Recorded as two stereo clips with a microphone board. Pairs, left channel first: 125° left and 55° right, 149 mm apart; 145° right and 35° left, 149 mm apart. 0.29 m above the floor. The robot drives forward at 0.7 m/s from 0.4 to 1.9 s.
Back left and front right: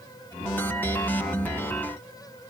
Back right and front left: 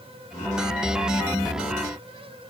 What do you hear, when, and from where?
Only background noise.